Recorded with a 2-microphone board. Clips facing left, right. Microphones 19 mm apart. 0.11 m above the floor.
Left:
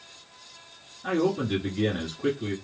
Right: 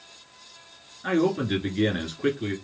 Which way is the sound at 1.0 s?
25° right (ahead or behind).